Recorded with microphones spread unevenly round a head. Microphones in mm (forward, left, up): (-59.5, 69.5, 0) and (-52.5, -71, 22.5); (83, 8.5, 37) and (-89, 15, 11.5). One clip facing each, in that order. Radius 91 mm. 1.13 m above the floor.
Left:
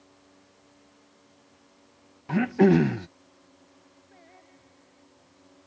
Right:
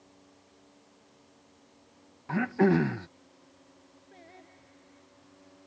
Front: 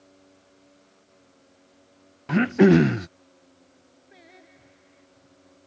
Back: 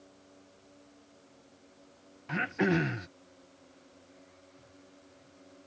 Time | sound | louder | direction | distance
2.3 | throat clearing | left 5 dB, front 13 dB | 25° left | ?
4.1 | singing | right 2 dB, front 4 dB | 15° right | ?